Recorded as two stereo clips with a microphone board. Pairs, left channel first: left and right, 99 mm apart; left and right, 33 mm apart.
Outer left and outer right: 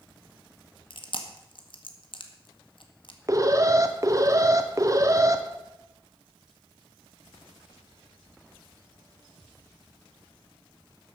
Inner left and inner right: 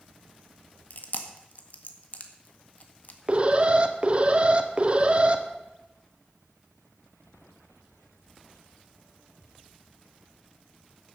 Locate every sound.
0.9 s chewing: 60° left (ahead or behind), 1.7 m
3.3 s an alarm: 35° right (ahead or behind), 1.2 m